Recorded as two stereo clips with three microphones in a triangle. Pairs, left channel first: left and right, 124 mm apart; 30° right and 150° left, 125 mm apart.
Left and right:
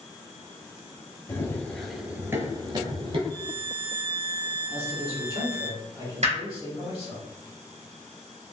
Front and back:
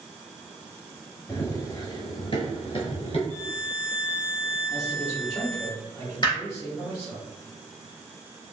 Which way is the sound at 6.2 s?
80° right.